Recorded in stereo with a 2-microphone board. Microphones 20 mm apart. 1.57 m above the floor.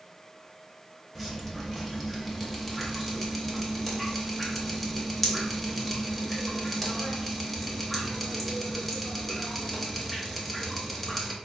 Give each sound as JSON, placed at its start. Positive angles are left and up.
{"t": 1.1, "sound": "dripping", "side_deg": 10, "distance_m": 0.7}